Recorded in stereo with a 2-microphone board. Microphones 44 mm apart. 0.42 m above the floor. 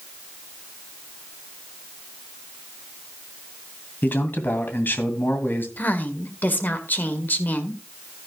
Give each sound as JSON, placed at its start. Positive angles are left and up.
{"t": 4.0, "sound": "a man speaking", "side_deg": 50, "distance_m": 2.5}
{"t": 5.8, "sound": "a woman speaking", "side_deg": 45, "distance_m": 1.7}